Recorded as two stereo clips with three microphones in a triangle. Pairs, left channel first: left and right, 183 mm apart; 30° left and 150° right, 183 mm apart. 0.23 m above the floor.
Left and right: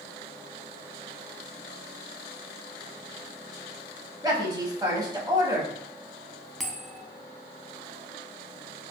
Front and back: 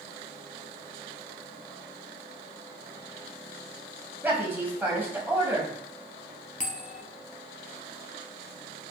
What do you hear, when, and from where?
4.2 s a woman speaking: 90° right, 1.0 m
6.6 s a bell: straight ahead, 0.6 m